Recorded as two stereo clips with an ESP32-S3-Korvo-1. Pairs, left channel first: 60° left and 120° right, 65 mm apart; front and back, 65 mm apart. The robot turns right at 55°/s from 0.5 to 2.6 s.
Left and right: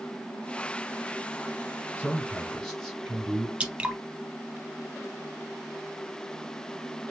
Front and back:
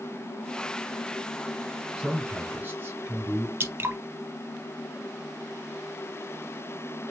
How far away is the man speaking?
About 2 m.